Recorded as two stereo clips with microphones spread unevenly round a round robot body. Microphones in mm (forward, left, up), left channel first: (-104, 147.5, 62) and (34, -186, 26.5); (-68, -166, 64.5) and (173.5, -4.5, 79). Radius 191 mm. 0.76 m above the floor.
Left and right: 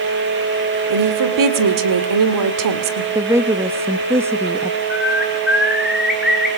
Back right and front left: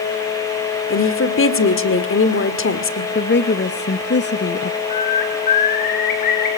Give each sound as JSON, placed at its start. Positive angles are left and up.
{"t": 0.9, "sound": "a woman speaking", "azimuth_deg": -100, "distance_m": 2.0}
{"t": 3.1, "sound": "a woman speaking", "azimuth_deg": -140, "distance_m": 1.1}
{"t": 4.9, "sound": "a bird", "azimuth_deg": -155, "distance_m": 5.0}